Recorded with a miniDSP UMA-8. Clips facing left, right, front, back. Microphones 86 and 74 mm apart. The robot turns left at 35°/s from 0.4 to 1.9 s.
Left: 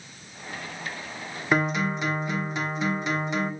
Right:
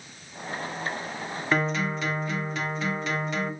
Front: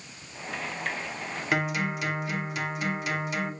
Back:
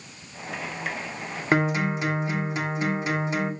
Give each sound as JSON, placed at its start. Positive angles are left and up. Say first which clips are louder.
{"t": 1.5, "sound": "a guitar", "louder": "left 2 dB, back 5 dB", "azimuth_deg": 160, "distance_m": 1.0}